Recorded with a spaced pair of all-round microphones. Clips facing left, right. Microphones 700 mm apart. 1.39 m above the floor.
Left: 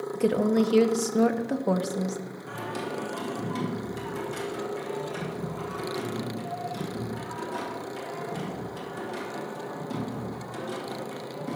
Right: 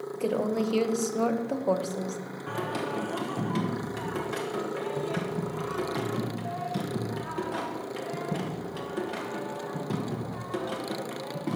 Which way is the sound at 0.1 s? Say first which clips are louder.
Left 5 dB; 50° left (ahead or behind).